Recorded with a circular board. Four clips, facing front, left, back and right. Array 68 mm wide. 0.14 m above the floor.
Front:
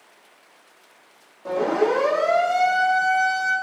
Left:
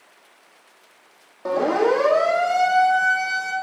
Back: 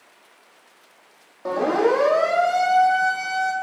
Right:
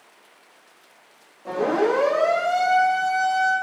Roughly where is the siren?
Behind left.